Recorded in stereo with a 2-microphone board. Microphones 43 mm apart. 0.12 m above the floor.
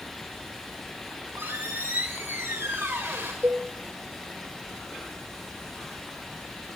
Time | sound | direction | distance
1.1 | a squeak | 70° right (ahead or behind) | 8 m
3.4 | a cowbell | 50° right (ahead or behind) | 2 m